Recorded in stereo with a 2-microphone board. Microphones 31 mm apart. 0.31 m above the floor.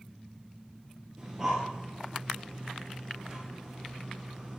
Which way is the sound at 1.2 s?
20° right (ahead or behind).